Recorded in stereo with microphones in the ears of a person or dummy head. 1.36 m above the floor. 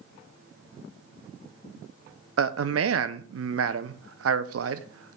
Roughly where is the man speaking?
Right.